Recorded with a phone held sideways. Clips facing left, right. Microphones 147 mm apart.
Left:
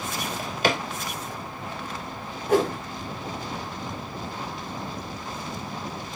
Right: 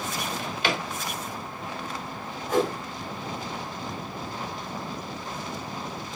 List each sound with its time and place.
0.2 s a drawer: 45° left (ahead or behind), 1.4 m
2.5 s a whoosh: 75° left (ahead or behind), 2 m